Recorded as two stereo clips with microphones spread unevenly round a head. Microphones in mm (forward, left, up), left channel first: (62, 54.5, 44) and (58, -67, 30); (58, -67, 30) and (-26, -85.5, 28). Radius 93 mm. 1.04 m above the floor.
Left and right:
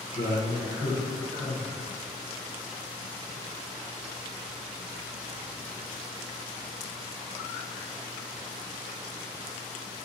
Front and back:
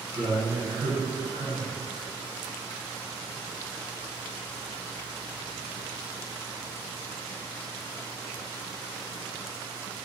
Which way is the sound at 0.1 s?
135° left.